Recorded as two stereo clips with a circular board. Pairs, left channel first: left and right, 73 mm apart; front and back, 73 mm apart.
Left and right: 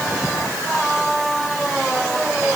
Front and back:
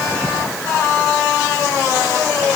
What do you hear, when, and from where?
Only background noise.